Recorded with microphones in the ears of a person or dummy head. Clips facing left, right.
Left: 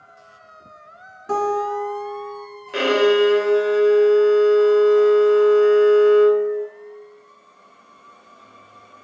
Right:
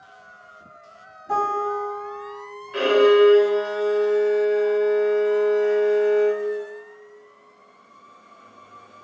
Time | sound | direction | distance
1.3 | a guitar | 85° left | 1.6 m
2.7 | a violin | 60° left (ahead or behind) | 0.7 m